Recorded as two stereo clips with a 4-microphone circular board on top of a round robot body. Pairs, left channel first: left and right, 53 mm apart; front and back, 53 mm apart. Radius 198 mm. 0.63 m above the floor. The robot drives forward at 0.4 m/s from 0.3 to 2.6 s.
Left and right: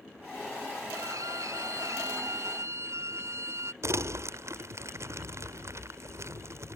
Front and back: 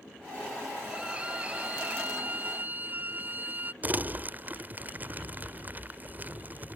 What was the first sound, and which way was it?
A violin, 110° right.